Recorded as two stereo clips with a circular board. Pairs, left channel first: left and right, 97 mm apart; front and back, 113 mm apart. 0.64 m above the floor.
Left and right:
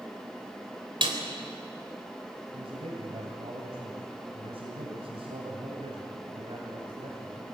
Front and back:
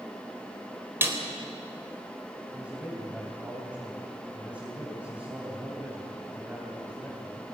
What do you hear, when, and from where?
1.0 s a snare drum: 110° right, 3.5 m
2.5 s a man speaking: 100° right, 3 m